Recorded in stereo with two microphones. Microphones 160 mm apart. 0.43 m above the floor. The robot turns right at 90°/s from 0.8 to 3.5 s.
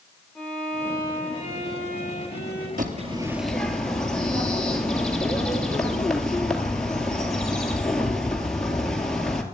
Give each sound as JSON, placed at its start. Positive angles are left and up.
{"t": 0.3, "sound": "a violin", "azimuth_deg": 5, "distance_m": 8.0}
{"t": 2.8, "sound": "a bird", "azimuth_deg": -60, "distance_m": 2.0}